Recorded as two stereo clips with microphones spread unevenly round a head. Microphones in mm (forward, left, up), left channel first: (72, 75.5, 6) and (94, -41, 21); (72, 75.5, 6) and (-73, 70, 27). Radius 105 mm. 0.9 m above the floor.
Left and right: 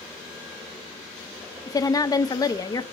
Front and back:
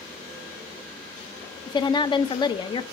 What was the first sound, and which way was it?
A woman speaking, 50° left.